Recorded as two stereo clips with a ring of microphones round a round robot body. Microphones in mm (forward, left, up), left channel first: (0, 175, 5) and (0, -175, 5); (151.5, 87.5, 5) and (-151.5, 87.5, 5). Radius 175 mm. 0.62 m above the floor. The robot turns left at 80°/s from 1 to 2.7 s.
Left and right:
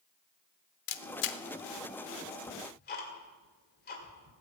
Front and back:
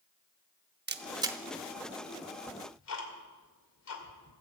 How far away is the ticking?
About 2.5 m.